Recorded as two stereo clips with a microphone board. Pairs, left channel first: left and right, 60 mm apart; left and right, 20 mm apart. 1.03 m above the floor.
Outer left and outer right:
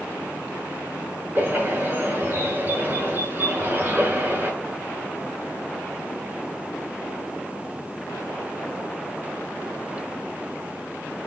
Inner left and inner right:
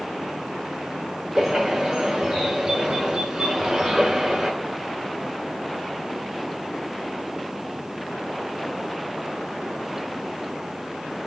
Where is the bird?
30° right (ahead or behind), 6.5 m.